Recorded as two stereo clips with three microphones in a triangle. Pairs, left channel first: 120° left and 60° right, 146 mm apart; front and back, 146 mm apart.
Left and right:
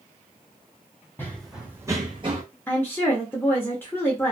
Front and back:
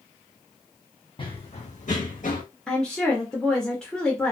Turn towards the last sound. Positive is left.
turn(degrees=75)